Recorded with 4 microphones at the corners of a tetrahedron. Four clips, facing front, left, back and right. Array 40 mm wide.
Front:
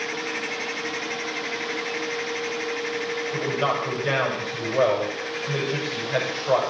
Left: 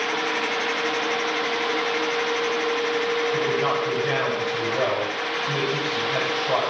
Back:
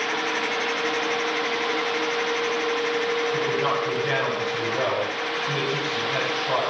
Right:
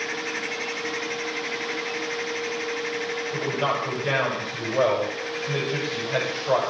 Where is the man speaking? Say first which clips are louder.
Left 3 dB, back 1 dB; 35° right, 7.5 m.